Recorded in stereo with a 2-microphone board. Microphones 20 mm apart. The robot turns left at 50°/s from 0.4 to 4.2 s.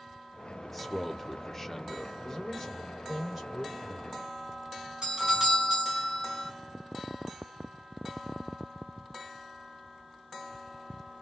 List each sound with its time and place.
0.6 s a man speaking: 5° left (ahead or behind), 0.7 m; by 2.1 s 20° left (ahead or behind), 0.7 m
2.2 s a man speaking: 40° left, 1.7 m; by 4.2 s 60° right, 1.7 m
5.0 s a doorbell: 40° right (ahead or behind), 2.5 m